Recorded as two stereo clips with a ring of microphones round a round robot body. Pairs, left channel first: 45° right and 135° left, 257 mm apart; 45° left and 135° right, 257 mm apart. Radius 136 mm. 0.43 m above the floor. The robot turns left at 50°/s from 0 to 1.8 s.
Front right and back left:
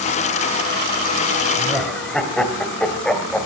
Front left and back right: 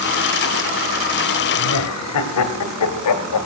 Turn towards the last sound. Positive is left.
turn(degrees=40)